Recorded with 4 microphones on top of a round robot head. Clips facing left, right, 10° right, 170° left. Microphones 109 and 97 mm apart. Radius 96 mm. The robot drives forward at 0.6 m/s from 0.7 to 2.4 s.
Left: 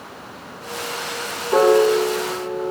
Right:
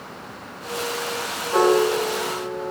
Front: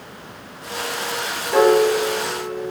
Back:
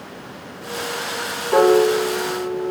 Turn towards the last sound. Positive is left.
turn(degrees=140)